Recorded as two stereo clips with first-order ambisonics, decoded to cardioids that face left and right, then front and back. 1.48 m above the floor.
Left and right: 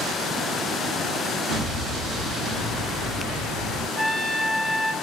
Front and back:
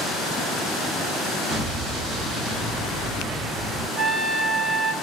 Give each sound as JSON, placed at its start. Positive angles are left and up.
{"t": 1.5, "sound": "an explosion", "azimuth_deg": -140, "distance_m": 1.1}
{"t": 4.0, "sound": "a trumpet", "azimuth_deg": 120, "distance_m": 0.6}